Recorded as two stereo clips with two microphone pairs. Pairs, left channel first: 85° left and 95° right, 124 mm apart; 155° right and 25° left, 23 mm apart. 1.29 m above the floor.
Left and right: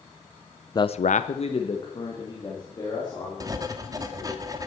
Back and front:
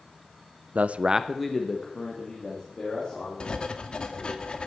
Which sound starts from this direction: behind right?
Writing, at 3.4 s.